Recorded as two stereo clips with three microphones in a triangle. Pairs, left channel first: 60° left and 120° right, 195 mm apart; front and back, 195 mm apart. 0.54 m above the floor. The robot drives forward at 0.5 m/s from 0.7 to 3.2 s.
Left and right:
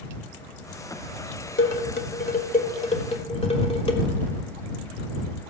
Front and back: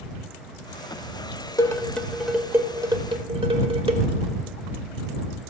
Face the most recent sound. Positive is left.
turn(degrees=120)